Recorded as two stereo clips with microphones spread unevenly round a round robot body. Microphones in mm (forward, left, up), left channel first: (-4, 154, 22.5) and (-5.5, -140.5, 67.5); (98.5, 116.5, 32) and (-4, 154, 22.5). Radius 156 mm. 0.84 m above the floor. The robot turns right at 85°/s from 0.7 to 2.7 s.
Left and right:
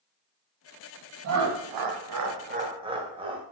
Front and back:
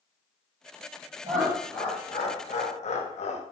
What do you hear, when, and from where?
1.2 s laughter: 140° right, 0.8 m; by 3.4 s 15° right, 0.8 m